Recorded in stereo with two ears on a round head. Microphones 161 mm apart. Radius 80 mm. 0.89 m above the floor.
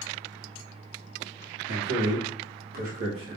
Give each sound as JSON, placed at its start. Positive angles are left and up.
{"t": 1.7, "sound": "a man speaking", "side_deg": -65, "distance_m": 2.0}